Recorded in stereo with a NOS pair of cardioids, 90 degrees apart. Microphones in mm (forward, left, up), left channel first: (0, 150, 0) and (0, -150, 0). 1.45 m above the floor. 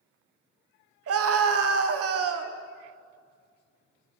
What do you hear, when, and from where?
1.1 s a scream: 55° right, 1.1 m